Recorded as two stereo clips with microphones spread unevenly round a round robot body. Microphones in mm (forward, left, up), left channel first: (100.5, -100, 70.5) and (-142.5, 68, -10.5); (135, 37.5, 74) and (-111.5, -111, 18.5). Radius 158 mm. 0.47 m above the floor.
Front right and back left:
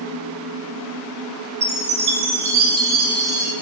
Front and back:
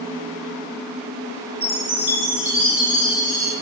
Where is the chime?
125° left, 0.7 m.